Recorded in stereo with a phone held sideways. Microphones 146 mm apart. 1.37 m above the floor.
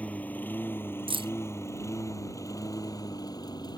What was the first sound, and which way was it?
A lawn mower, 10° left (ahead or behind).